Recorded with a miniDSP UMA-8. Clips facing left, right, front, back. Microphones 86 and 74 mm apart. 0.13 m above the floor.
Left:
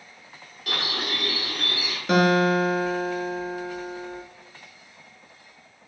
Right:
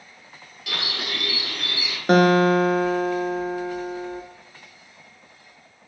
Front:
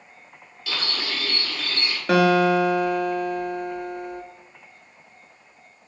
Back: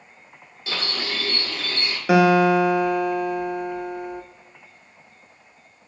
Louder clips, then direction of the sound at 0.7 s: Left 1 dB, back 1 dB; 125° left.